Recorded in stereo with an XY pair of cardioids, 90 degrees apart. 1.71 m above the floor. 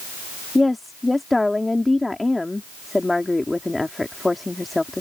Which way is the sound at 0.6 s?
15° left.